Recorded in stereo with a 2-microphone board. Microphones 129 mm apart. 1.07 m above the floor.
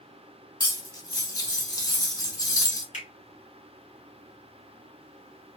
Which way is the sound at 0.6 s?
30° left (ahead or behind).